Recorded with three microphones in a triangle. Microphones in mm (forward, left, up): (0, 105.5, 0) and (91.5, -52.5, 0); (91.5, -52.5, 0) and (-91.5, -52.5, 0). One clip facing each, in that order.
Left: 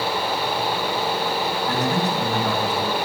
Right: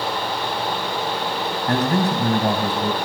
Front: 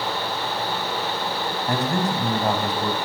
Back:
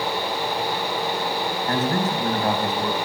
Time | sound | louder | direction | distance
1.7 | a man speaking | right 5 dB, even | 75° right | 3.5 m